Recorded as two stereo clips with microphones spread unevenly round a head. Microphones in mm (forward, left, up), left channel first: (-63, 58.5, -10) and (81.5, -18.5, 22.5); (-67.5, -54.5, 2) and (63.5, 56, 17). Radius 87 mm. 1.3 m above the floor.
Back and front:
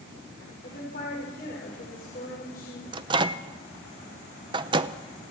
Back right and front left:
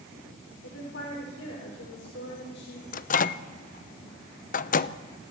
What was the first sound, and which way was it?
A woman speaking, 160° right.